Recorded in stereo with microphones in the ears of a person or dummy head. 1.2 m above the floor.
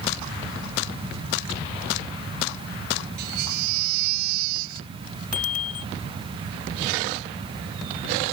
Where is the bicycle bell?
45° left (ahead or behind).